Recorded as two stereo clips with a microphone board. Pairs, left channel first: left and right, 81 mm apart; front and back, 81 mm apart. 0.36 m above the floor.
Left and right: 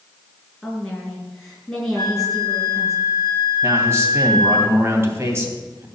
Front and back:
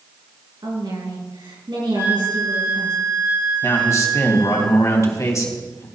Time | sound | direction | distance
0.6 | a woman speaking | 175° left | 5 m
1.9 | a flute | 125° right | 4 m
3.6 | a man speaking | 40° right | 2.5 m